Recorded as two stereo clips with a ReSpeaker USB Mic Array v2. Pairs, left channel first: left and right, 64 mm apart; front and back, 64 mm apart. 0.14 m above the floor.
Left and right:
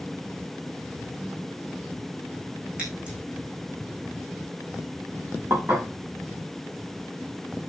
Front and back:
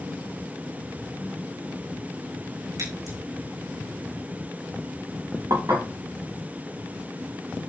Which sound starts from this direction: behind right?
Dishes clattering, at 5.5 s.